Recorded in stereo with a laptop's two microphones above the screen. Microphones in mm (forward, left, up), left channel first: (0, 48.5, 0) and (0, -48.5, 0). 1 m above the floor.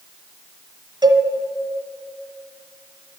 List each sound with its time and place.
1.0 s a cowbell: 55° right (ahead or behind), 1.4 m